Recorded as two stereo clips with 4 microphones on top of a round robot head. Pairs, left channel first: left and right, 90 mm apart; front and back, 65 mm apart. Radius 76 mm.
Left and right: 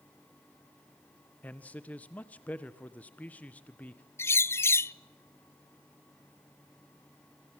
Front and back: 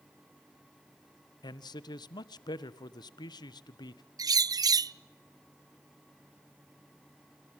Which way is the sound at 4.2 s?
155° left.